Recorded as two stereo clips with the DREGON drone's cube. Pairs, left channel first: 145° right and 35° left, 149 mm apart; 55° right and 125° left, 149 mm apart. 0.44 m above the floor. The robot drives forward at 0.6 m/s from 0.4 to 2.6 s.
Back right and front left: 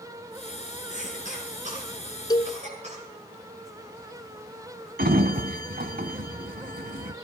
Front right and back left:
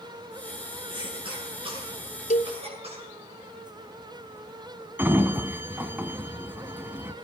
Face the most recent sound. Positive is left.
turn(degrees=45)